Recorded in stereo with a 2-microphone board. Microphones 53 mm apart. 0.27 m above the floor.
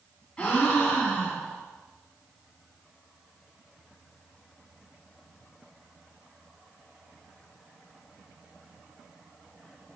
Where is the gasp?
20° left (ahead or behind), 2.5 m.